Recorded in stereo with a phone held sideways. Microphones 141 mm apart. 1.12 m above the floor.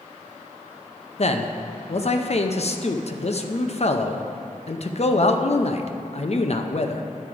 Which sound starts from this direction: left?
A man speaking, at 1.2 s.